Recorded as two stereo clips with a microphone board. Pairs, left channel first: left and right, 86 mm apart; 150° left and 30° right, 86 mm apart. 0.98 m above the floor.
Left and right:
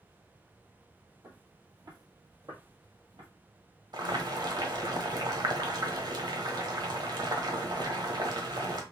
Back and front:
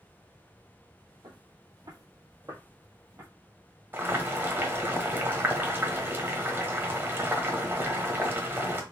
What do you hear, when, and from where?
1.2 s footsteps: 55° right, 1.9 m; by 3.3 s 90° right, 2.0 m
3.9 s boiling: 90° right, 1.1 m